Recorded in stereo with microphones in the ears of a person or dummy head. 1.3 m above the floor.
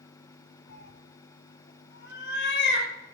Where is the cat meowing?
70° left (ahead or behind), 3.5 m.